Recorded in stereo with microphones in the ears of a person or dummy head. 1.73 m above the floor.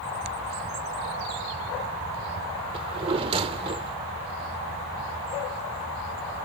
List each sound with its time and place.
2.7 s a drawer: 30° right (ahead or behind)